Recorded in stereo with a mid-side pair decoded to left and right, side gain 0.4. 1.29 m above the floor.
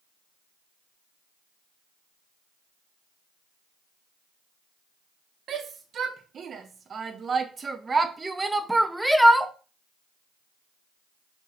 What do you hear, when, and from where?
5.5 s a shout: 65° right, 3 m; by 9.5 s 10° left, 1.6 m